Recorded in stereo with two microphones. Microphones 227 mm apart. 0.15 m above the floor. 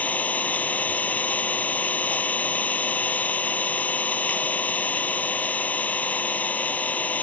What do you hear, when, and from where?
0.0 s an engine running: 5° left (ahead or behind)